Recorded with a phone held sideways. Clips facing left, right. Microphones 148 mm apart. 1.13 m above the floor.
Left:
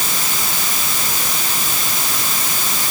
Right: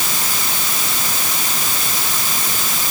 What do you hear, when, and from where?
Only background noise.